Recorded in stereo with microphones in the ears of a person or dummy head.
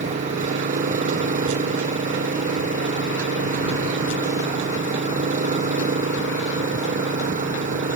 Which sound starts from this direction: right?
An engine running, at 0.0 s.